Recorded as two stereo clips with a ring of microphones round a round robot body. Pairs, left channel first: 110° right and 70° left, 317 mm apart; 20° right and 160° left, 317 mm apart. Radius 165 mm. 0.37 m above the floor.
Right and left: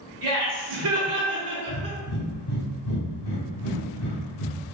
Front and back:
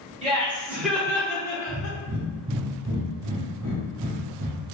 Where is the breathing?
135° right, 1.6 m.